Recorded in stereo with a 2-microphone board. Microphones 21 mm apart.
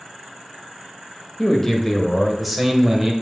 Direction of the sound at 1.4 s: 20° left (ahead or behind).